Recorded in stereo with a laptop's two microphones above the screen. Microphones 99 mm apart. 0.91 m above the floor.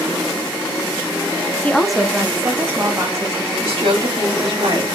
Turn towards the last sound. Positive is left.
turn(degrees=-60)  # may be behind; listen again after turning